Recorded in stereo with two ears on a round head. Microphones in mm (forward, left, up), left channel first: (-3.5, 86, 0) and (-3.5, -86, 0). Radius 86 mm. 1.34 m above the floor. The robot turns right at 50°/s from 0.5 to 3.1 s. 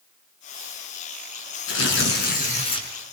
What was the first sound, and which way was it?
Tearing paper, 100° left.